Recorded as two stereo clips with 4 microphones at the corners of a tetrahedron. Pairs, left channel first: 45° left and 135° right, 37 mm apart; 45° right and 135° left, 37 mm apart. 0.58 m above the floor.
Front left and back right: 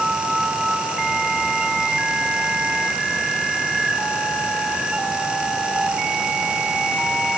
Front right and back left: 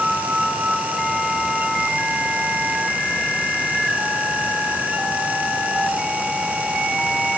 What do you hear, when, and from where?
Only background noise.